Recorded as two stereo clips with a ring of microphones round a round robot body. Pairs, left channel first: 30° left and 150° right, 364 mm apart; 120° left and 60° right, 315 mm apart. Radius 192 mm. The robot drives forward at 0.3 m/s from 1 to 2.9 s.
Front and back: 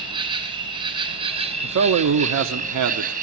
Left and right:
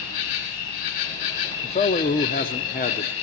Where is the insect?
135° left, 2.5 m; by 3.2 s 140° left, 2.5 m.